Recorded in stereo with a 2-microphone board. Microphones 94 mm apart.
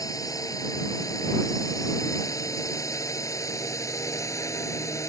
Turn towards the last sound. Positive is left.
turn(degrees=30)  # may be behind; listen again after turning